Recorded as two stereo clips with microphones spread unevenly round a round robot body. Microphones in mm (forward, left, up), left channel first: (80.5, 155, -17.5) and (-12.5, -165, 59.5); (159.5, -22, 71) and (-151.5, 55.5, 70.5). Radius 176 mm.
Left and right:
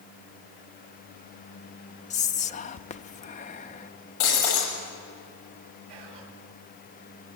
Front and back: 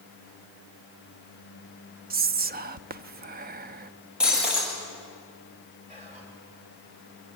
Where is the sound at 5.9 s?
125° right, 6 m.